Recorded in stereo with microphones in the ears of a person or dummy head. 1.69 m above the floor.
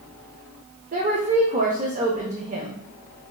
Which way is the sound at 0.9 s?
30° right (ahead or behind).